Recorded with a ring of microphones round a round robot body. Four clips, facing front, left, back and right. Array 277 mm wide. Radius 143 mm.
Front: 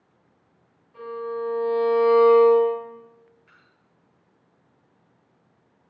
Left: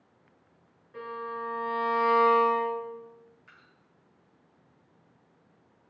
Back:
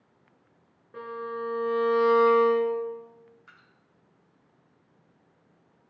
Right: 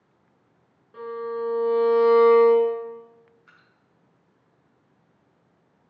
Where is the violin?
165° right, 3.5 m.